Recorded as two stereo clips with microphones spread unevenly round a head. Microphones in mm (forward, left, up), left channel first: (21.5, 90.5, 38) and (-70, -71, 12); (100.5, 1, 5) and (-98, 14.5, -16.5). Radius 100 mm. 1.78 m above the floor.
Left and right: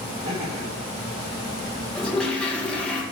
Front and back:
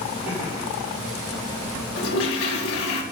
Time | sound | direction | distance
0.2 | laughter | 100° right | 4 m
1.9 | a toilet flushing | 25° right | 2.5 m